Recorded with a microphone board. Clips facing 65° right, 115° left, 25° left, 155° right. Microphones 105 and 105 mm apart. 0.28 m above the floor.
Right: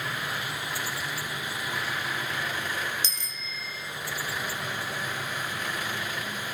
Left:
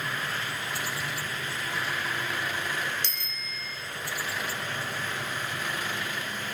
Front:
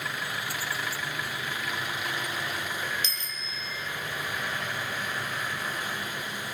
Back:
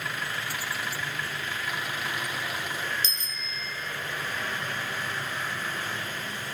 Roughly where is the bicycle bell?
Behind left.